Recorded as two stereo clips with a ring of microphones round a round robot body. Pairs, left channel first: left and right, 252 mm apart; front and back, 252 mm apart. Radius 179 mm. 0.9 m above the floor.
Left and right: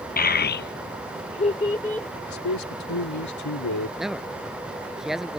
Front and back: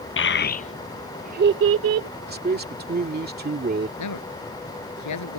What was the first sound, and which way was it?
A child speaking, 35° left.